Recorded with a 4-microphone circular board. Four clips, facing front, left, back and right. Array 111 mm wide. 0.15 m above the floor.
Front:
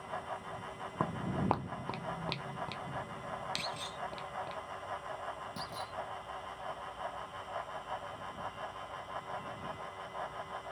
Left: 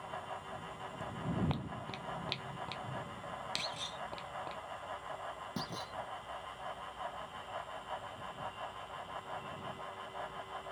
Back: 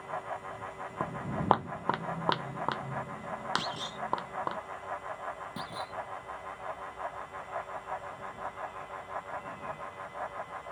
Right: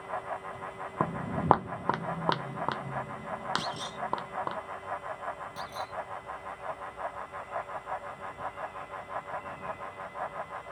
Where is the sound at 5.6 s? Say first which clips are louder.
Right 5 dB, back 3 dB; 115° left.